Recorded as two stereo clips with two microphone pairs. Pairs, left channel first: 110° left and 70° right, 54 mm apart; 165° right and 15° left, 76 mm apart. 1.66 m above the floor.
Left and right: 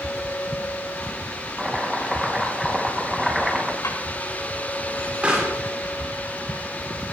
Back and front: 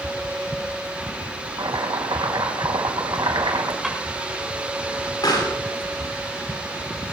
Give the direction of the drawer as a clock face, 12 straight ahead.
9 o'clock.